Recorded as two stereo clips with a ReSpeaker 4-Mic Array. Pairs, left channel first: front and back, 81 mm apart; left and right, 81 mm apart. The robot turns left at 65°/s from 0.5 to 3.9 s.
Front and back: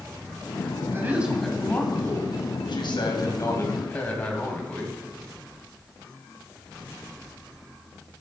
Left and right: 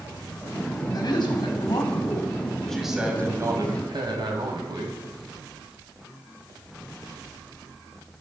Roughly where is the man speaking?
Behind left.